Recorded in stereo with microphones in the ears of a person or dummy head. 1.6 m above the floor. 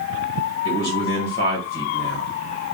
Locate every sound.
0.7 s a man speaking: 65° left (ahead or behind), 1.3 m